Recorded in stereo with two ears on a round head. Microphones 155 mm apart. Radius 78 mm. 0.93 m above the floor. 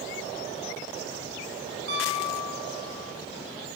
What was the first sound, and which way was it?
A piano, 60° right (ahead or behind).